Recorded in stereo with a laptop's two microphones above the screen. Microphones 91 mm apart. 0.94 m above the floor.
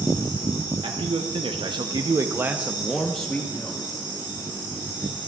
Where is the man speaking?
80° right, 1.1 m; by 3.8 s 25° left (ahead or behind), 1.1 m.